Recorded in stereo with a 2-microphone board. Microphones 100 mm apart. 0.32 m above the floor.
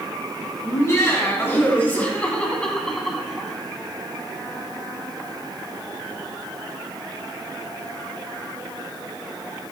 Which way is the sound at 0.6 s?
30° left (ahead or behind).